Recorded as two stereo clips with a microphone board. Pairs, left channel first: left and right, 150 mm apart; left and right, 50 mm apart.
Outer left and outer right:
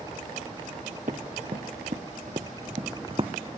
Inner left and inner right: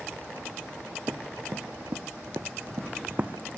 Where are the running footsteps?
65° right (ahead or behind); by 3.3 s 35° right (ahead or behind).